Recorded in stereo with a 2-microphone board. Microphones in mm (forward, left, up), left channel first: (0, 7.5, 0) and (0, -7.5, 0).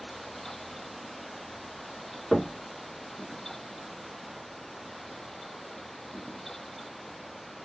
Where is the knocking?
20° left (ahead or behind), 0.8 m.